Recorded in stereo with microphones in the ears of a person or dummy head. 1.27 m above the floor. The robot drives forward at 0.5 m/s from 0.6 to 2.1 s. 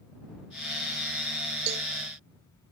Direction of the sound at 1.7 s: 40° right (ahead or behind).